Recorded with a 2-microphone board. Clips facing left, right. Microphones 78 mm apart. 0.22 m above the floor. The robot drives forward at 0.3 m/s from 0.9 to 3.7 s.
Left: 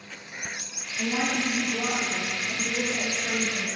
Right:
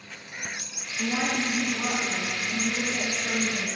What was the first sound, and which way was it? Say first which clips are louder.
A woman speaking: even; 35° left (ahead or behind).